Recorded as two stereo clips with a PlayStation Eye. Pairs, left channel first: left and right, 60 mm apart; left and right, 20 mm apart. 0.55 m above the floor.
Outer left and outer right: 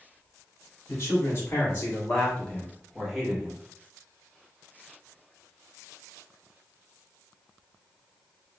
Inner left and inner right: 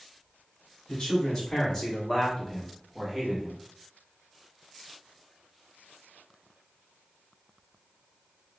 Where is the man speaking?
45° left (ahead or behind), 1.7 m; by 3.6 s 15° right (ahead or behind), 1.1 m.